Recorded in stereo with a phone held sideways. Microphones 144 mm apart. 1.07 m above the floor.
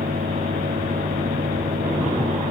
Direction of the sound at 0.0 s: 85° right.